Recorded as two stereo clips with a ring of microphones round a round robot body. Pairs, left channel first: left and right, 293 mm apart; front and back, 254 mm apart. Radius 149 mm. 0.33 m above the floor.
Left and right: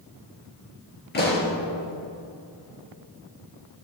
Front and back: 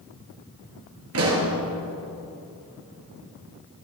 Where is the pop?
150° left, 3.5 m.